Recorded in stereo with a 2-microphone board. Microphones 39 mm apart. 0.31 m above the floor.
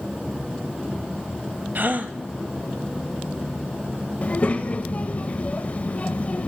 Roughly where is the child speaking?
Left.